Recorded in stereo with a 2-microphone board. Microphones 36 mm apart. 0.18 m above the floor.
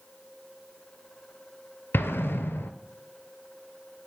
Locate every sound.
1.9 s an explosion: 80° left, 0.5 m